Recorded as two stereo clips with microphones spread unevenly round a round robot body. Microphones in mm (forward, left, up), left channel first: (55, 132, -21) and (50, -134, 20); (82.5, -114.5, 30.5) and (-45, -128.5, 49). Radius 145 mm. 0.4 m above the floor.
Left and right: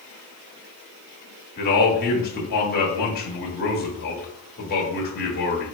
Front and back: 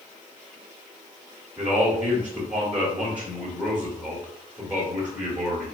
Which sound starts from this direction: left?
A man speaking, at 1.6 s.